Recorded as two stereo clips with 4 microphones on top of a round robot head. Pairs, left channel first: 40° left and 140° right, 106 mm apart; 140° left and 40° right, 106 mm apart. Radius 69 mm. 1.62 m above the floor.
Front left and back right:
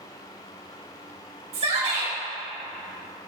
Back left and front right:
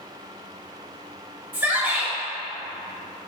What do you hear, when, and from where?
1.5 s a shout: 115° right, 1.2 m